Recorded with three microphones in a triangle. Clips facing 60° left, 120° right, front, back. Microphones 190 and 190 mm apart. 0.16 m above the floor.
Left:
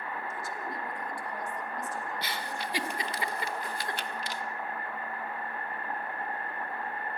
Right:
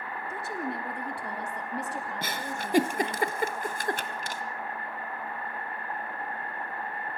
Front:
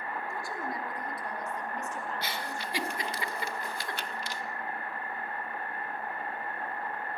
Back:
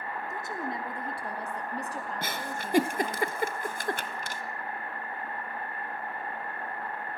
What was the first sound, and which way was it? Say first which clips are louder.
A woman speaking: right 4 dB, back 3 dB; 110° right.